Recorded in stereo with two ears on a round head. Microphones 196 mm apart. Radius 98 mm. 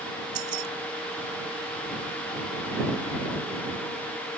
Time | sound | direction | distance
0.3 | keys jangling | 85° right | ?